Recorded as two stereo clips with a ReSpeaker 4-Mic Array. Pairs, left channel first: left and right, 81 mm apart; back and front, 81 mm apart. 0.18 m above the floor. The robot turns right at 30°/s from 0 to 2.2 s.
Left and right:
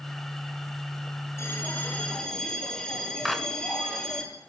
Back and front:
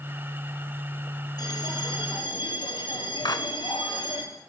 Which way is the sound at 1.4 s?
145° left.